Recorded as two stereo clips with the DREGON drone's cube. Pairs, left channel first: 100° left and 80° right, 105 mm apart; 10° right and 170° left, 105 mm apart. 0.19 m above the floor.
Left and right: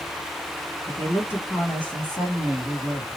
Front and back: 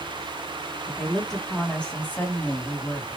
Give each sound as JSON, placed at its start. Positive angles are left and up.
{"t": 0.9, "sound": "a woman speaking", "azimuth_deg": 80, "distance_m": 1.5}